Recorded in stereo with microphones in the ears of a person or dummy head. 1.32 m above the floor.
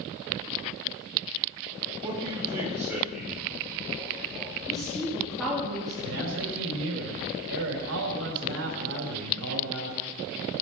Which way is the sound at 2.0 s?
20° right (ahead or behind).